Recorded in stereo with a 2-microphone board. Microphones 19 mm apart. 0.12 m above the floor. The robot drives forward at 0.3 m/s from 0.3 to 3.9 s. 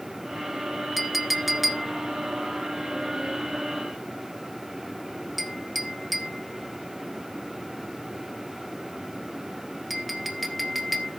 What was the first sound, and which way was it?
A clink, 10° right (ahead or behind).